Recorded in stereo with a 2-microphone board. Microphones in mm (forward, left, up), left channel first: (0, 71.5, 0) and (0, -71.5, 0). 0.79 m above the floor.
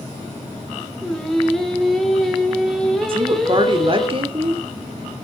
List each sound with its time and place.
1.0 s singing: centre (ahead or behind), 2 m
3.1 s a woman speaking: 40° right (ahead or behind), 1.8 m